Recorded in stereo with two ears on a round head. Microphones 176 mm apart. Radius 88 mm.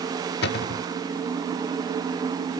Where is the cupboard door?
60° left (ahead or behind).